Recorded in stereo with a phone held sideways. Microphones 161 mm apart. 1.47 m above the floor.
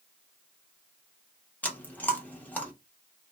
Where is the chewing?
10° left (ahead or behind), 1.0 m.